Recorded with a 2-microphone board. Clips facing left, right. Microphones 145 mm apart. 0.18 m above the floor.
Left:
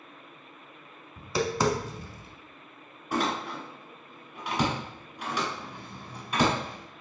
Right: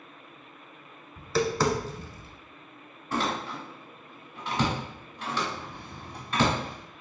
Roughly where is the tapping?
Centre.